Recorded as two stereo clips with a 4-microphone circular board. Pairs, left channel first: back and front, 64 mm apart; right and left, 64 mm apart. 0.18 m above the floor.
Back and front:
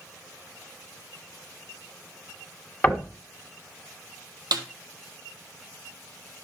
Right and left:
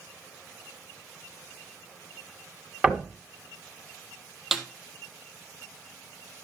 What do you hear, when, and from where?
2.8 s knocking: 145° left, 1.3 m
4.5 s a snare drum: 5° left, 1.1 m